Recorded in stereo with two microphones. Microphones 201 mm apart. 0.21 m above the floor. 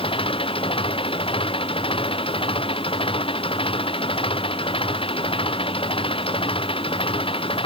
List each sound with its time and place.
0.0 s an engine running: 25° left (ahead or behind)